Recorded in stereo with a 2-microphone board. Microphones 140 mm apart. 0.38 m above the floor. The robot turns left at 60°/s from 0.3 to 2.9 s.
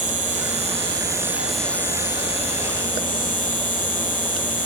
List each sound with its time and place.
0.0 s an insect: 105° right, 1.5 m; by 4.7 s 100° left, 1.5 m